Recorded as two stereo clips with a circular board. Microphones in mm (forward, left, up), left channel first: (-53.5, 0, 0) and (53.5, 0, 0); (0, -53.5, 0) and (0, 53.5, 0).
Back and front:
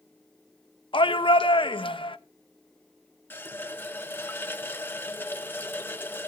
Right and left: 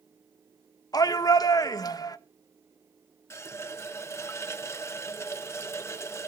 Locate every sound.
0.9 s a shout: 145° right, 0.9 m
3.3 s a running tap: 130° right, 0.9 m